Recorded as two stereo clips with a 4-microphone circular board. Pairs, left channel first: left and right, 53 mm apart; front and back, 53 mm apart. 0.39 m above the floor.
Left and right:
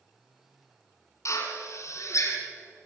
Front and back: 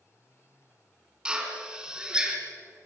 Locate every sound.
1.2 s a drill: 105° left, 2.5 m